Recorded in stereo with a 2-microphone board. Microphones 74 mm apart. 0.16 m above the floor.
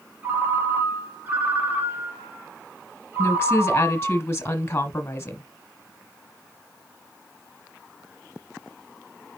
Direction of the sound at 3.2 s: 30° left (ahead or behind).